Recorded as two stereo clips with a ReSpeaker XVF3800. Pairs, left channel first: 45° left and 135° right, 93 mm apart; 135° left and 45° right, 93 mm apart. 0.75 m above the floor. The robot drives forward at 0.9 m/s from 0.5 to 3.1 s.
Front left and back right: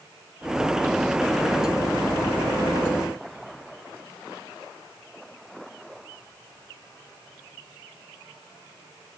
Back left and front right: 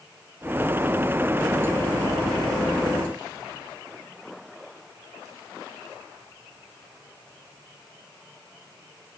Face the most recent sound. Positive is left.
No sound to turn to.